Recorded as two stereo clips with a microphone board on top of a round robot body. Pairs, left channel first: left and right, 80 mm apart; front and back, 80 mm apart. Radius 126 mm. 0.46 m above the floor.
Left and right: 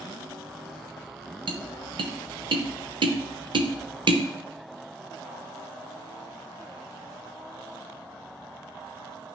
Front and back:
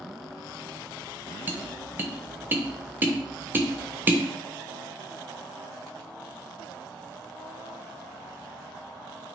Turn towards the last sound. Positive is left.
turn(degrees=-115)